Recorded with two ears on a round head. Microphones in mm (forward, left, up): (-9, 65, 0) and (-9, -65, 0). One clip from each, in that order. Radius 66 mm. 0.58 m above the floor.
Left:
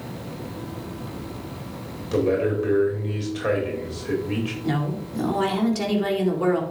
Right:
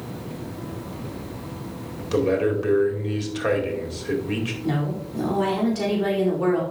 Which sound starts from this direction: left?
A woman speaking, at 4.6 s.